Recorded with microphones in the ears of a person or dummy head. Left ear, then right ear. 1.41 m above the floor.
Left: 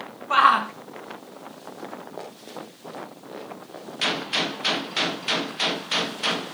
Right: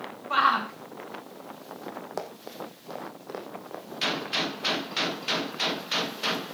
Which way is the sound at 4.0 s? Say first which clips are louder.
Left 4 dB; 10° left (ahead or behind).